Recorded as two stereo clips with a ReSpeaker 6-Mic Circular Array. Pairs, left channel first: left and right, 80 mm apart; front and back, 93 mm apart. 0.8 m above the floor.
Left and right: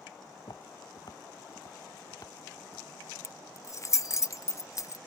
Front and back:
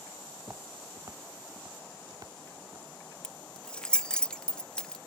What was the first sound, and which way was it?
Footsteps, 115° left.